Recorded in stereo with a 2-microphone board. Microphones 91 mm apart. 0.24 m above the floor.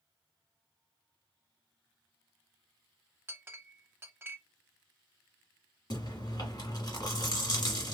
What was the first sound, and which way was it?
A clink, 25° right (ahead or behind).